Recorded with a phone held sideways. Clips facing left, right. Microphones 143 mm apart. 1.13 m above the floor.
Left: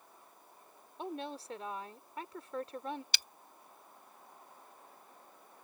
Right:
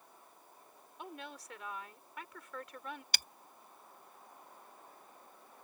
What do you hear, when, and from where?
1.0 s a woman speaking: 30° left (ahead or behind)
3.1 s breaking glass: 50° right (ahead or behind)